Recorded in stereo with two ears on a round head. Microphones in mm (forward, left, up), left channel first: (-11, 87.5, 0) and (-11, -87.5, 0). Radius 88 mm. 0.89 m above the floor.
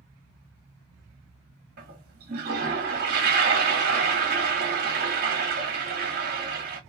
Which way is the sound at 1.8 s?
55° right (ahead or behind).